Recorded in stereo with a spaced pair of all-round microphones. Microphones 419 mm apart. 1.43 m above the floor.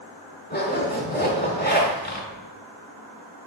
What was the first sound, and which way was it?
A zipper, 25° left (ahead or behind).